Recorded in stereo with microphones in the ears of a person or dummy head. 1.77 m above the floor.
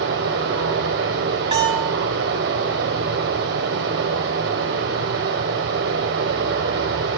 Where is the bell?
25° right (ahead or behind), 4.5 m.